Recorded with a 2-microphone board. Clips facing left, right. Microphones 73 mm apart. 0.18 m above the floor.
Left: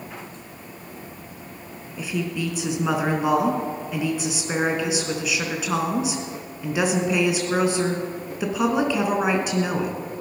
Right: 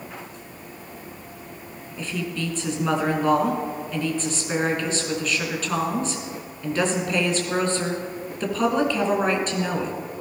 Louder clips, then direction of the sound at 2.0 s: Left 2 dB; 10° left (ahead or behind).